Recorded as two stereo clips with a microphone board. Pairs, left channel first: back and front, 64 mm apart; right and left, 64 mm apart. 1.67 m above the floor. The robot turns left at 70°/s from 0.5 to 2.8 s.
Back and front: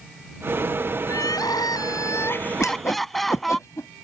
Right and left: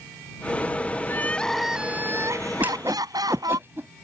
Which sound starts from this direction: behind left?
A whoosh, at 2.6 s.